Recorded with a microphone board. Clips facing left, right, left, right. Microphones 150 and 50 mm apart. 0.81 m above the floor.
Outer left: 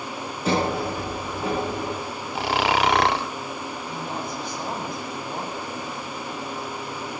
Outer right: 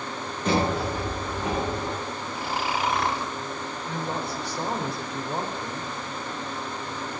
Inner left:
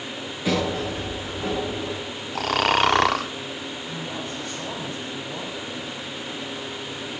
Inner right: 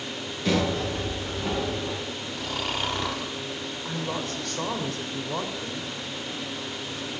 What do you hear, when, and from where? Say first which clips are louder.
0.5 s a sliding door: outer left 1 dB, inner left 1 dB; 10° left (ahead or behind), 9.5 m
2.4 s snoring: outer left 7 dB, inner left 11 dB; 75° left (ahead or behind), 0.7 m
3.9 s a woman speaking: outer right 3 dB, inner right 4 dB; 75° right (ahead or behind), 3.5 m